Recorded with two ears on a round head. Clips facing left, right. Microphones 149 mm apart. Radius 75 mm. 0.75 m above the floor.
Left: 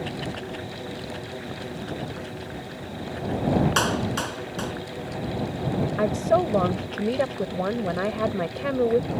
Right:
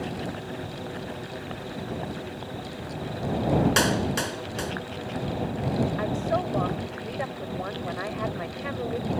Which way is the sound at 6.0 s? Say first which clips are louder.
Left 5 dB; 50° left (ahead or behind).